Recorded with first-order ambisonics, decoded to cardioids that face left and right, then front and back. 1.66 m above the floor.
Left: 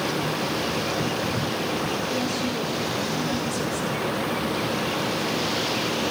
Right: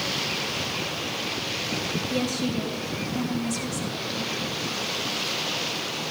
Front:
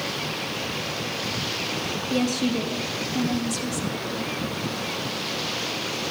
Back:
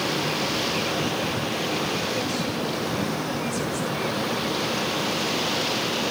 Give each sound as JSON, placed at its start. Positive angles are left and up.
{"t": 2.1, "sound": "a woman speaking", "azimuth_deg": -35, "distance_m": 4.0}